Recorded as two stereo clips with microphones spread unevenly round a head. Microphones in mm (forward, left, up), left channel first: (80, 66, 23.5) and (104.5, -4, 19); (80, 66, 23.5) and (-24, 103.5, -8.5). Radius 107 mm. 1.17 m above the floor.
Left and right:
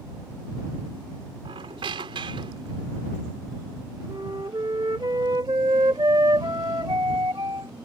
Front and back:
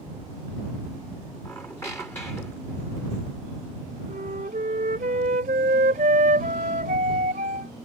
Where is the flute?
140° right.